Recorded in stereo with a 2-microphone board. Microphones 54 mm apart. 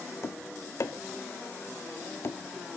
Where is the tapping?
55° left (ahead or behind), 1.5 m.